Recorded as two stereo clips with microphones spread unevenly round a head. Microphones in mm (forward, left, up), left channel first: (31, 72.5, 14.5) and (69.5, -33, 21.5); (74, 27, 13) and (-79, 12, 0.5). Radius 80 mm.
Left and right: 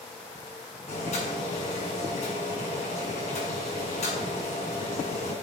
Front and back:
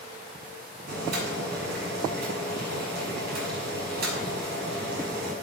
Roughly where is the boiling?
Behind.